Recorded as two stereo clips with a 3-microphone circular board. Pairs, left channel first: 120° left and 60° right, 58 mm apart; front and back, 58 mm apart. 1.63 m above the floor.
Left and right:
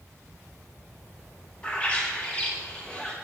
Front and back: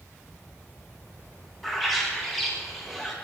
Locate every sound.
1.6 s a bird: 85° left, 0.9 m